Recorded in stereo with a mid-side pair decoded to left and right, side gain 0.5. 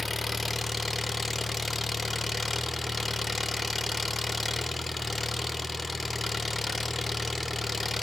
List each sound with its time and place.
0.0 s an engine running: 15° left, 0.9 m